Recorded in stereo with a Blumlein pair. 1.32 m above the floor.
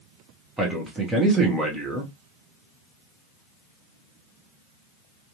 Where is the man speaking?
15° right, 0.7 m.